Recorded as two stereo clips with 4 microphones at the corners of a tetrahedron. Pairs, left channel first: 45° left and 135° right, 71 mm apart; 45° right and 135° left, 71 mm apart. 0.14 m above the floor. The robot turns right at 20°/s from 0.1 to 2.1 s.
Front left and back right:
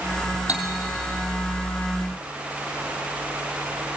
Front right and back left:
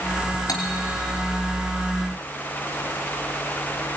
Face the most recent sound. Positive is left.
turn(degrees=-35)